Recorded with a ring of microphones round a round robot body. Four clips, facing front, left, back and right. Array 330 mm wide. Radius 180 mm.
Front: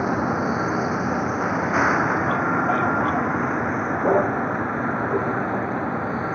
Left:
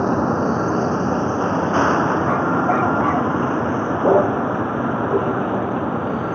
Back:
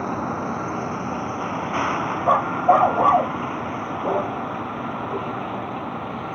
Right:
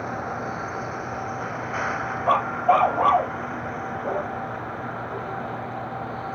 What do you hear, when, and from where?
0.0 s a vehicle: 80° left
2.3 s a dog barking: 160° right